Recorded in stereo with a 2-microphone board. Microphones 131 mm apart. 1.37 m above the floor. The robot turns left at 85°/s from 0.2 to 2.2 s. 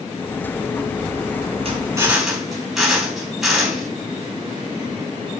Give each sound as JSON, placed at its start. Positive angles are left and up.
{"t": 1.6, "sound": "a drill", "azimuth_deg": -130, "distance_m": 4.0}